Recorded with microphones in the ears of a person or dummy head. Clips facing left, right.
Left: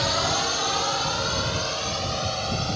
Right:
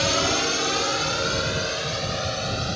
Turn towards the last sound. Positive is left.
turn(degrees=-20)  # may be behind; listen again after turning